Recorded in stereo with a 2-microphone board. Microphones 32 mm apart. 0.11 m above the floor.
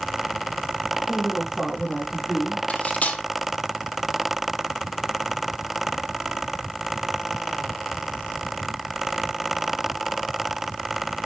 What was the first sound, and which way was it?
A woman speaking, centre (ahead or behind).